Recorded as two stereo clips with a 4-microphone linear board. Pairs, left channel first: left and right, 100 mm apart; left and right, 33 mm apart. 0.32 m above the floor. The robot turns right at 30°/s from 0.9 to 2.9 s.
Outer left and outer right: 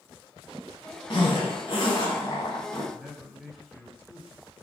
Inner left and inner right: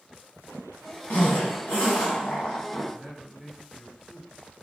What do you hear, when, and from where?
1.1 s a zipper: 90° left, 2.0 m; by 2.8 s 140° left, 2.0 m
2.9 s a man speaking: centre (ahead or behind), 0.9 m